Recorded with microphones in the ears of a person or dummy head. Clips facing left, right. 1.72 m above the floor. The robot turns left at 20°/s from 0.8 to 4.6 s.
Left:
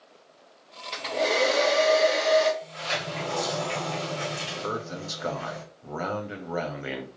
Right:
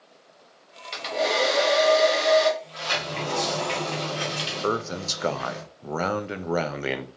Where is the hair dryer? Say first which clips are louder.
Right 1 dB; straight ahead, 1.8 m; by 2.5 s 30° right, 1.8 m.